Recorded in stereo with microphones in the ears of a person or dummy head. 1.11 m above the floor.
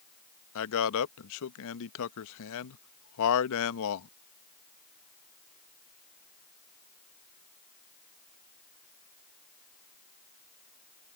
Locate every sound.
0.6 s a man speaking: 75° left (ahead or behind)